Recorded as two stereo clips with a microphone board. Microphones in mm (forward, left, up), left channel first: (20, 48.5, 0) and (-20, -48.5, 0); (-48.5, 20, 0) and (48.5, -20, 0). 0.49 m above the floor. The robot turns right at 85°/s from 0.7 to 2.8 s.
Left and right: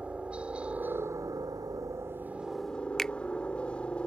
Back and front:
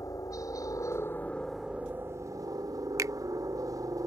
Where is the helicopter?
175° left; by 4.1 s 5° right.